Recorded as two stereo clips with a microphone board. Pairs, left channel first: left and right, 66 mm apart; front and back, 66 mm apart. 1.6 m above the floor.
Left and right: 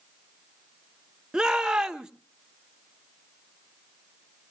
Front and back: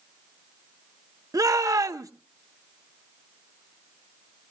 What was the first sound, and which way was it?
A shout, 165° right.